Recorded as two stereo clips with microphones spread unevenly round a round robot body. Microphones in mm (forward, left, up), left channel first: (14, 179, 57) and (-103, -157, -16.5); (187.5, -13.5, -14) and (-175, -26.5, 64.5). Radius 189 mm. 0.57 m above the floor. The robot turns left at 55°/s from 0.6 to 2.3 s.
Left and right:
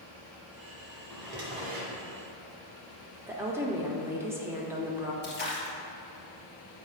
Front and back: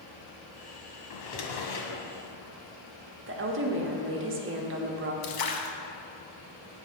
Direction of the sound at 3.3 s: 140° right.